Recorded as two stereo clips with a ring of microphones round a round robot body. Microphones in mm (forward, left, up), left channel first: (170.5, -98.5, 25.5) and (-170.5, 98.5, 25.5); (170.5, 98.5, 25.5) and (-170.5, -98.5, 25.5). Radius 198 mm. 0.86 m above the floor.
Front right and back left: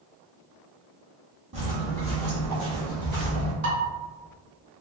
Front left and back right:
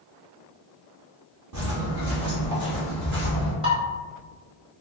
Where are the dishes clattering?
135° left, 1.3 m.